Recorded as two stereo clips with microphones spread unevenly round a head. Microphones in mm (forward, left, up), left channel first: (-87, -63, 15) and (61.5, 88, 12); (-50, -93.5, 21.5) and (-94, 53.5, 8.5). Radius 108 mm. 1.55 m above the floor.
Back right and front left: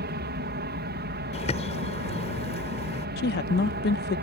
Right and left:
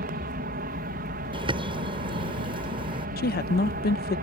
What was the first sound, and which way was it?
An aircraft, 80° left.